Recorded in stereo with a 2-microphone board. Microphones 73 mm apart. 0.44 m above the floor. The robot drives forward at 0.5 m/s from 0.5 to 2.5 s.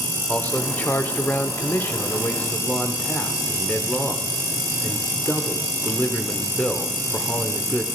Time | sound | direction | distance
0.3 | a man speaking | 20° left (ahead or behind) | 0.9 m